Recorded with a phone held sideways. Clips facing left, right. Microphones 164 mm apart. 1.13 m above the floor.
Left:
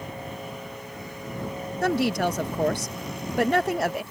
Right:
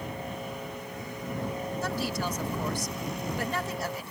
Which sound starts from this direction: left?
A woman speaking, at 1.8 s.